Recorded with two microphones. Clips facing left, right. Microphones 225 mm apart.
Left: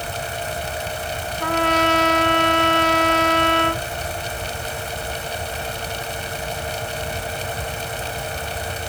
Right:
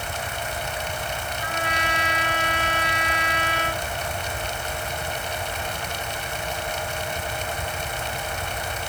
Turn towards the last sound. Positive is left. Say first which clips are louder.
# left 13 dB
turn(degrees=70)  # may be behind; listen again after turning